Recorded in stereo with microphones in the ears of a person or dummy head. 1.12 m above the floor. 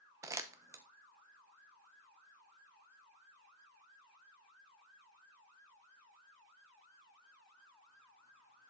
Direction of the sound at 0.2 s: 15° right (ahead or behind).